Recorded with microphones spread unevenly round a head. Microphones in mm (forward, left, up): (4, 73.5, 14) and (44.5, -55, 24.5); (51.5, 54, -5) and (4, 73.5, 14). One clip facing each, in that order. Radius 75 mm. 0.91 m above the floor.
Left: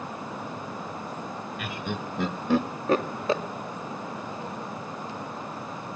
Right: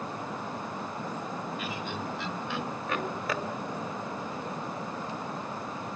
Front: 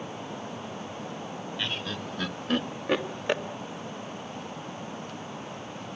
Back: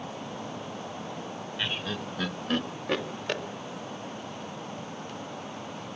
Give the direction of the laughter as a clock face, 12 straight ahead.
10 o'clock.